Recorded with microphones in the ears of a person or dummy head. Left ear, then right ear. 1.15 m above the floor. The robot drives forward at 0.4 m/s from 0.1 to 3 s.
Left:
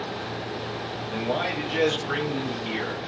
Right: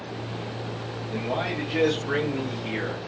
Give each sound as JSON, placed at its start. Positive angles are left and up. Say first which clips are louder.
{"t": 1.1, "sound": "a man speaking", "louder": "left 1 dB", "side_deg": 5, "distance_m": 1.0}